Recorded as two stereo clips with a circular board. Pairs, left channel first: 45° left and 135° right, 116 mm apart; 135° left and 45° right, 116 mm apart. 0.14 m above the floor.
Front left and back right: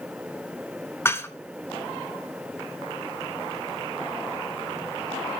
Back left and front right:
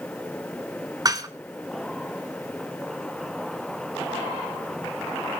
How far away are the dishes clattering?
About 1.0 m.